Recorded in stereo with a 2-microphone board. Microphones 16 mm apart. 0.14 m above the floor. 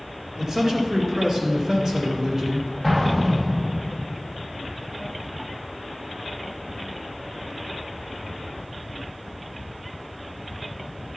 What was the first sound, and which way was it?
A man speaking, 40° right (ahead or behind).